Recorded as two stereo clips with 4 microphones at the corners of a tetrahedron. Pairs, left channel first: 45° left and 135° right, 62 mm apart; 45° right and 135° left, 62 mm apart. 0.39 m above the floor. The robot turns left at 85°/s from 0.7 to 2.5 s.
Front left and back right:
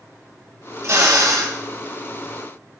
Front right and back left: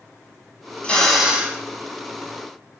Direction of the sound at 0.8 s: 110° right.